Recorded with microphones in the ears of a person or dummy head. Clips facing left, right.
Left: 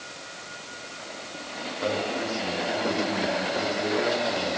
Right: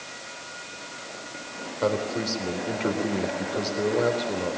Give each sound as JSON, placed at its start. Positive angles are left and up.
{"t": 1.8, "sound": "a man speaking", "side_deg": -60, "distance_m": 4.0}